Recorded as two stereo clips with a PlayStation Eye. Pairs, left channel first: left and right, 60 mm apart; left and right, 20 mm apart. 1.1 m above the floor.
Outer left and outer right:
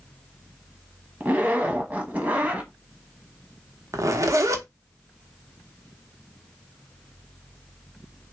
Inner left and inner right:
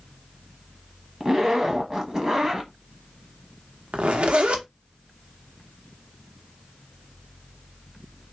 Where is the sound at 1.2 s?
25° right (ahead or behind), 1.4 m.